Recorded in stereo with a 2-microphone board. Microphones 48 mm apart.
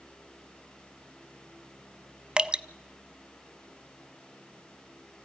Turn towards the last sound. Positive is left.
turn(degrees=-20)  # may be behind; listen again after turning